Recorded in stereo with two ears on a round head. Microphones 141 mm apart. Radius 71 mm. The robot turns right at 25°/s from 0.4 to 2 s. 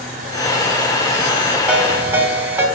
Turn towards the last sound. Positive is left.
turn(degrees=-15)  # may be behind; listen again after turning